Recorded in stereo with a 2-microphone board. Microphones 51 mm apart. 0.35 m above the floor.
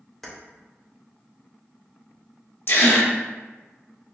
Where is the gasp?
55° left (ahead or behind), 0.6 m.